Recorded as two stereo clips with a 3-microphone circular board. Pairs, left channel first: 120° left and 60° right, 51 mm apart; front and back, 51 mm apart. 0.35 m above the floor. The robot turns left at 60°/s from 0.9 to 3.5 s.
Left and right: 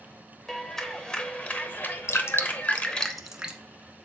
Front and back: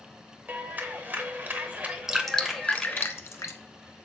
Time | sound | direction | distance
0.5 | a clap | 165° right | 0.8 m
2.1 | dripping | 100° left | 0.8 m